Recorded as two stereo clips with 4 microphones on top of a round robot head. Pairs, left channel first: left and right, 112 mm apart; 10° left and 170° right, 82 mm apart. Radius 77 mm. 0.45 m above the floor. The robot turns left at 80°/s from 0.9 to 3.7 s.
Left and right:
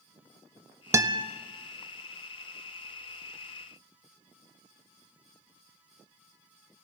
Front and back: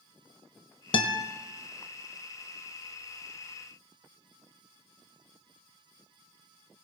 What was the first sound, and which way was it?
A guitar, 25° right.